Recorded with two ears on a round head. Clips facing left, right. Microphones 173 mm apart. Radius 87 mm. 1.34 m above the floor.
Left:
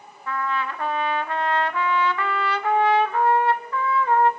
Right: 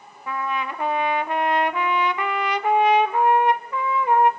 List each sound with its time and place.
0.3 s a trumpet: 15° right (ahead or behind), 0.7 m